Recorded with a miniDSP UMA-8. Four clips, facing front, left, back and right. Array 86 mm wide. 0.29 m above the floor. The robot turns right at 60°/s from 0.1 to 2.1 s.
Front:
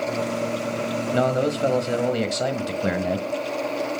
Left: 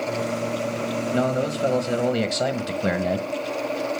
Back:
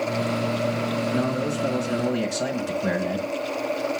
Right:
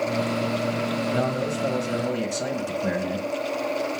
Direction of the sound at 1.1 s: 5° left.